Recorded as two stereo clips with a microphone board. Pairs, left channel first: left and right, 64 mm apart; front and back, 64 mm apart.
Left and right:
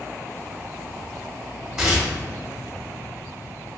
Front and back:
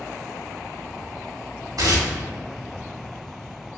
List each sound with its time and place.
1.8 s tearing paper: 175° right, 1.3 m